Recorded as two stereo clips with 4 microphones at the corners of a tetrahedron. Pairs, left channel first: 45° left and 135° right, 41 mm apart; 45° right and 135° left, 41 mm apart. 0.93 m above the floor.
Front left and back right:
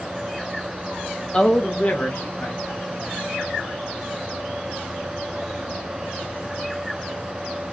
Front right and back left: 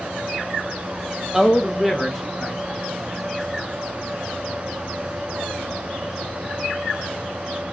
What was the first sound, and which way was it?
A man speaking, 75° left.